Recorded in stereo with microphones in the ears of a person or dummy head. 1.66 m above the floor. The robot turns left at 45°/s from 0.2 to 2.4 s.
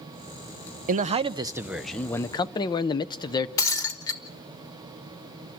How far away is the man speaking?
About 0.6 m.